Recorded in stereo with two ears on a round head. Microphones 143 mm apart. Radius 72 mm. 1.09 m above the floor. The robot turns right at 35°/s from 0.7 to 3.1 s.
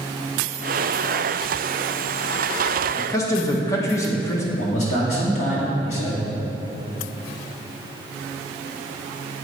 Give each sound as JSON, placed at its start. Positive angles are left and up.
{"t": 3.0, "sound": "a man speaking", "side_deg": 15, "distance_m": 1.0}
{"t": 4.5, "sound": "a man speaking", "side_deg": 45, "distance_m": 2.0}